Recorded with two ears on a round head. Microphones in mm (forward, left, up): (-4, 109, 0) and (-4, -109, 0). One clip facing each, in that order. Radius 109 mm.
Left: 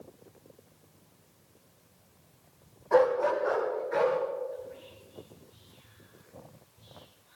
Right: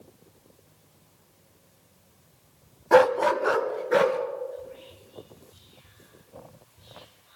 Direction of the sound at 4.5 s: 10° right (ahead or behind).